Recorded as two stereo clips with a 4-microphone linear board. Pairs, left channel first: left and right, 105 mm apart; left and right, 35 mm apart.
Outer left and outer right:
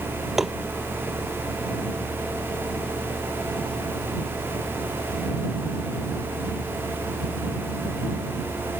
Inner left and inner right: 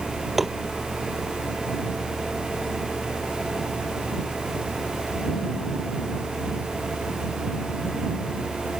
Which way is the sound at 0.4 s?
Centre (ahead or behind).